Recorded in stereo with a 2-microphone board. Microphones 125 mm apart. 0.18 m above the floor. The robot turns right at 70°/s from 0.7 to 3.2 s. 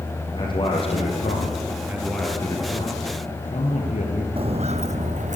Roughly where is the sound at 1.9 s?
Ahead.